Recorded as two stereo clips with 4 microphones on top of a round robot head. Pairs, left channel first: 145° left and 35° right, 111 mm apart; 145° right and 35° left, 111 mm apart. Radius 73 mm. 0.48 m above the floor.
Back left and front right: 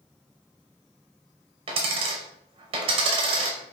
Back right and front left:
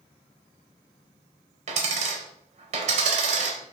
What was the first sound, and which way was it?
A dropped coin, 10° left.